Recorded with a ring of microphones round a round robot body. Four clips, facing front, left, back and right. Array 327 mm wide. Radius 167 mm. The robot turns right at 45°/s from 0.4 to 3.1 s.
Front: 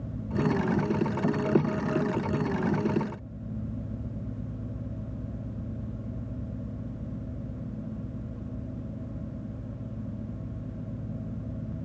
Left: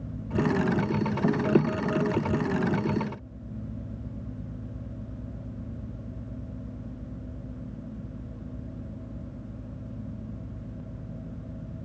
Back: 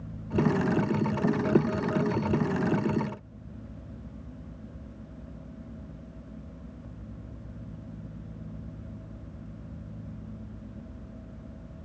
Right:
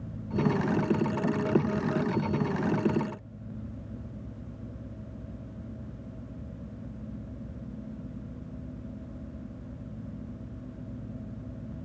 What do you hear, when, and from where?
Only background noise.